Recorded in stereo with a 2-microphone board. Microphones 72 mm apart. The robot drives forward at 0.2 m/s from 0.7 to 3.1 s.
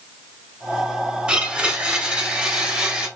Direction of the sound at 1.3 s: 10° right (ahead or behind).